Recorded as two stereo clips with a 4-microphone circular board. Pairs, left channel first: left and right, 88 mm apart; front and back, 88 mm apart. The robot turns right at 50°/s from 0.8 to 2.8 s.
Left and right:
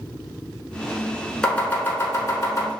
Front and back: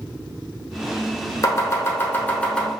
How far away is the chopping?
About 0.9 m.